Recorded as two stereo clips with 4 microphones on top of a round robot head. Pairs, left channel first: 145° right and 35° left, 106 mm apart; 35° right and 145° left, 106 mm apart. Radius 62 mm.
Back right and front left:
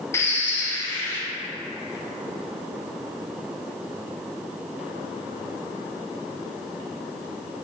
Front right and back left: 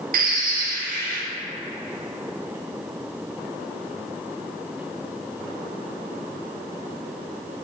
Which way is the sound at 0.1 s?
145° left.